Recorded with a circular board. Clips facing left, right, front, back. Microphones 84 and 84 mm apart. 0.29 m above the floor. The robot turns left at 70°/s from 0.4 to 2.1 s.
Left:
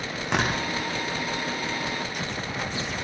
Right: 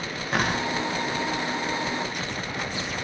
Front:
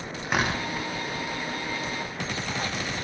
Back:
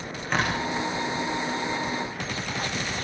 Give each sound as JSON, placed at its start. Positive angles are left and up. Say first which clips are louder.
{"t": 0.2, "sound": "tearing paper", "louder": "even, even", "azimuth_deg": 80, "distance_m": 6.5}